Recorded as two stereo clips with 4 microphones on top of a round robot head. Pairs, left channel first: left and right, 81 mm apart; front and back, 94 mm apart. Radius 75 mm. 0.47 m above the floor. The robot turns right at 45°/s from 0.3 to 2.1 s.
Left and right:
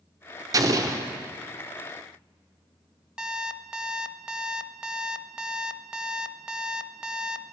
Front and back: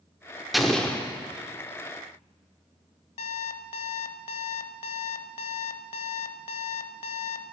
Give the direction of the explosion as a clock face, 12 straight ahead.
3 o'clock.